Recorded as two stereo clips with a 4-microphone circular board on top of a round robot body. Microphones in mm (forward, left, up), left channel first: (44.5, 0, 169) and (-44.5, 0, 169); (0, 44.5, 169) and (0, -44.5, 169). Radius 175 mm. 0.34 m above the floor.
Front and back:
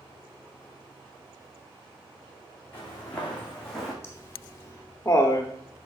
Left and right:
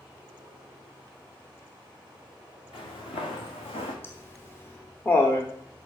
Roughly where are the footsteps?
Ahead left.